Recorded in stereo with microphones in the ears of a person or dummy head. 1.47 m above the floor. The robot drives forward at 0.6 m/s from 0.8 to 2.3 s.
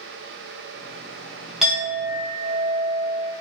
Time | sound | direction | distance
1.6 | a clink | 5° right (ahead or behind) | 0.6 m